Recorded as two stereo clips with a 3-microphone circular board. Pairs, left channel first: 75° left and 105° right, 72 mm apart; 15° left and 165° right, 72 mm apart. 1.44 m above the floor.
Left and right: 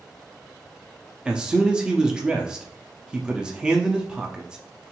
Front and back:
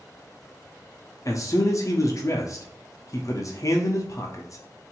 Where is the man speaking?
25° right, 0.6 m.